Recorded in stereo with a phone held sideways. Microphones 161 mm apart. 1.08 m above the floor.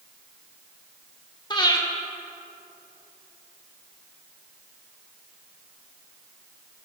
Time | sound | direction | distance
1.5 | breathing | 25° left (ahead or behind) | 1.4 m